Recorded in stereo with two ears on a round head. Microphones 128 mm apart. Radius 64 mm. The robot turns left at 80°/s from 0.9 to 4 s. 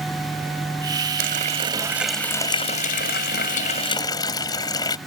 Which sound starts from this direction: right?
A running tap, at 1.2 s.